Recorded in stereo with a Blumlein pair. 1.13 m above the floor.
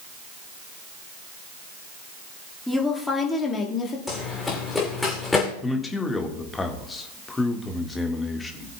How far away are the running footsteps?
About 4 m.